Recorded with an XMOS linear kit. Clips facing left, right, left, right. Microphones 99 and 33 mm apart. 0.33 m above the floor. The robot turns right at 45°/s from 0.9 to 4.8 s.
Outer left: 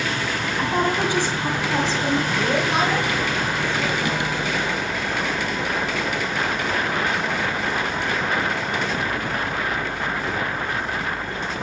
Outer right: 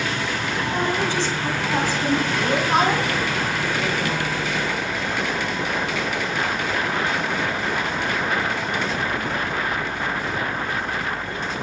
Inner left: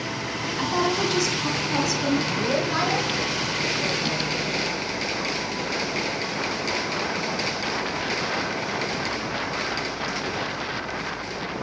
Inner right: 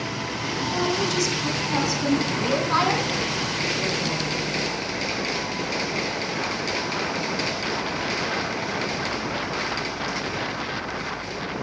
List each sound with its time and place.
0.6 s a woman speaking: 150° left, 2.5 m; by 2.2 s 150° right, 2.5 m
2.3 s a woman speaking: 60° right (ahead or behind), 2.5 m; by 4.2 s 10° left (ahead or behind), 2.5 m